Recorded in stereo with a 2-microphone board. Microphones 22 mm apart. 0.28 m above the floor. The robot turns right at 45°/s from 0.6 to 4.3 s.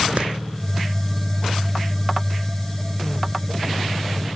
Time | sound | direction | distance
0.2 | a clap | 55° right (ahead or behind) | 4 m